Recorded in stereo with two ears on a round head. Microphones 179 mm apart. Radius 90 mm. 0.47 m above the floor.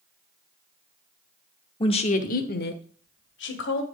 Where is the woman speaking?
25° left (ahead or behind), 0.9 m; by 3.8 s 65° left (ahead or behind), 2 m.